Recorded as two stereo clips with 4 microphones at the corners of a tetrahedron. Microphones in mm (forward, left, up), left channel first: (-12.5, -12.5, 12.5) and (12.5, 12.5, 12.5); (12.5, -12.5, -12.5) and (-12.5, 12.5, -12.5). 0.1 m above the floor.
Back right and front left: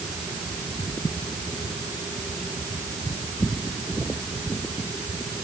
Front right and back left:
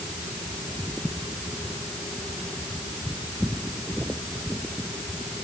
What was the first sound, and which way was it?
Only background noise.